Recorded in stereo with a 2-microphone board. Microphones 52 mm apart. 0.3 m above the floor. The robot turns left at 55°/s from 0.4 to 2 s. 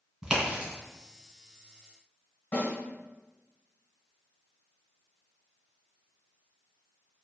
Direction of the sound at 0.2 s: 10° right (ahead or behind).